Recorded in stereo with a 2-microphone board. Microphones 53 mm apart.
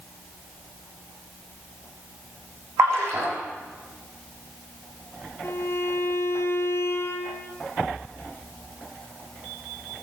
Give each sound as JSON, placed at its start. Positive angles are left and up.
{"t": 2.8, "sound": "a splash", "side_deg": -55, "distance_m": 9.0}
{"t": 5.4, "sound": "a violin", "side_deg": 55, "distance_m": 2.0}